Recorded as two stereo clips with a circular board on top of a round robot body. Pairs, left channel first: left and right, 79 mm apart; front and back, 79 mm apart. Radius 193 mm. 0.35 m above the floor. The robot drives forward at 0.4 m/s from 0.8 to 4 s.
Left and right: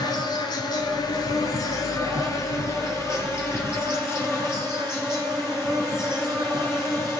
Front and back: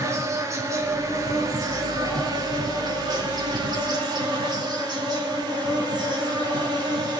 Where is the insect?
130° left, 1.8 m; by 7.2 s 150° left, 3 m.